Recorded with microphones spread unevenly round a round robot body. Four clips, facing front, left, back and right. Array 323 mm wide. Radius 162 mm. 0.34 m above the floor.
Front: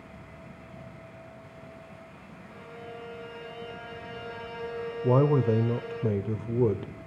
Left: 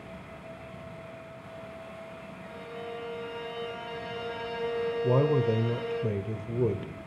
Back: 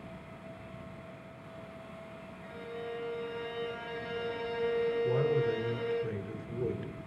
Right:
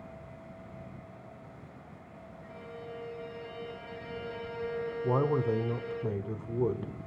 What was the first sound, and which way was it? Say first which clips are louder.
A violin: left 4 dB, back 3 dB; 165° left.